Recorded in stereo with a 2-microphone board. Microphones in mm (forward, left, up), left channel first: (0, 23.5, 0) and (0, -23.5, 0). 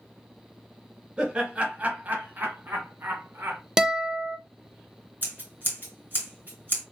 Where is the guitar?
15° right (ahead or behind), 0.7 m.